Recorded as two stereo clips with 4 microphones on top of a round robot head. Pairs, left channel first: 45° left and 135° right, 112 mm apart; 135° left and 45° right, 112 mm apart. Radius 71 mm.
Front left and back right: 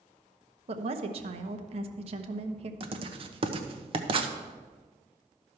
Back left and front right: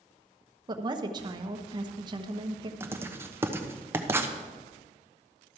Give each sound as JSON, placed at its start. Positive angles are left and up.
{"t": 0.7, "sound": "a woman speaking", "azimuth_deg": -95, "distance_m": 1.0}
{"t": 2.8, "sound": "writing", "azimuth_deg": -110, "distance_m": 1.0}